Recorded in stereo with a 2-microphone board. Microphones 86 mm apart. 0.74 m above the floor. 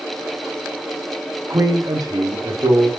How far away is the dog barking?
No dog barking in this recording.